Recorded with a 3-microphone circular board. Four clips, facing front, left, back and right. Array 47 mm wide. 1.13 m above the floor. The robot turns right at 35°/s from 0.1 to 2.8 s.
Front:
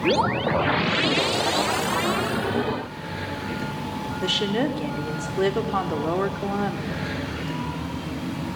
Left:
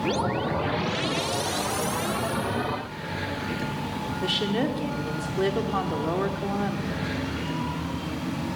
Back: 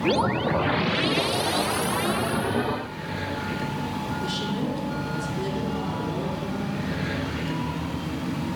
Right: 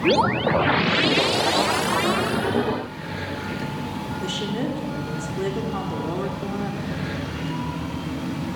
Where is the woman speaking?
20° left, 2.5 m.